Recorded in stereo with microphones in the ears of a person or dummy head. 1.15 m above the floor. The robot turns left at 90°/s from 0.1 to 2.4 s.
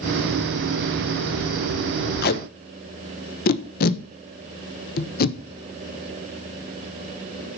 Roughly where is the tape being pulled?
Left.